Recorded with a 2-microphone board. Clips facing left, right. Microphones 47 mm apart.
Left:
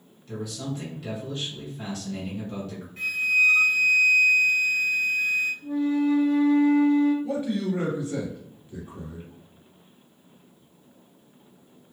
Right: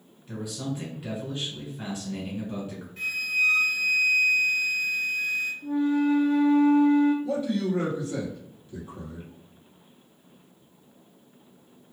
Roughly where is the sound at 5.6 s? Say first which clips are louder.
Right 2 dB; right.